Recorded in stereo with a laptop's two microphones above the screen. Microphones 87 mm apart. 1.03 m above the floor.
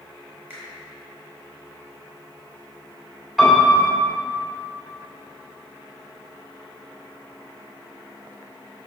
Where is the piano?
5° right (ahead or behind), 2.5 m.